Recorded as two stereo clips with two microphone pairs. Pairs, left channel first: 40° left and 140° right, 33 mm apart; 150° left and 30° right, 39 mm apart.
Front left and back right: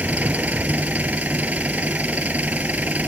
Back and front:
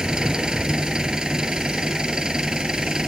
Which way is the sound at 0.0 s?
105° right.